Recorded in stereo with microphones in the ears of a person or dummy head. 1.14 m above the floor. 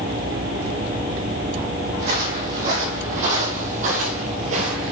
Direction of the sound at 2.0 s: 45° right (ahead or behind).